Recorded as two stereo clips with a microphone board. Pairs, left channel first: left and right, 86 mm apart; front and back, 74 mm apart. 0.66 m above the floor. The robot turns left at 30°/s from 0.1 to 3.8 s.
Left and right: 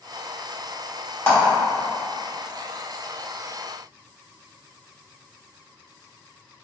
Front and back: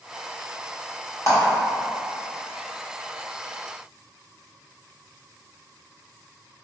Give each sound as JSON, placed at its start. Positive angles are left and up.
{"t": 1.3, "sound": "a clap", "azimuth_deg": 35, "distance_m": 1.4}